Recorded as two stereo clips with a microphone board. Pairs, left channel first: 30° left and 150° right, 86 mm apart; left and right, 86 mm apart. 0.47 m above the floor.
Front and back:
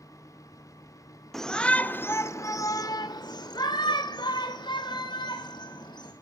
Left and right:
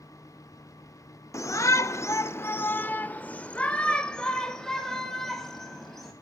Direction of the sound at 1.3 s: 115° left.